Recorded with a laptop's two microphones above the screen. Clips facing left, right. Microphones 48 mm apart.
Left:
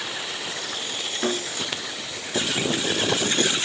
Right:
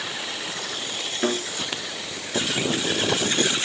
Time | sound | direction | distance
1.2 | a thud | 5° right (ahead or behind) | 5.5 m